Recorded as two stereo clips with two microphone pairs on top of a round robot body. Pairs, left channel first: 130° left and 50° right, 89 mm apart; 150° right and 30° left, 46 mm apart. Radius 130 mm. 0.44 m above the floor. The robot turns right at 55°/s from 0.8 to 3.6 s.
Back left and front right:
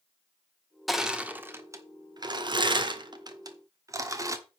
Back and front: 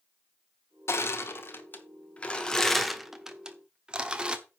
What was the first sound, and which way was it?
Crushing, 150° right.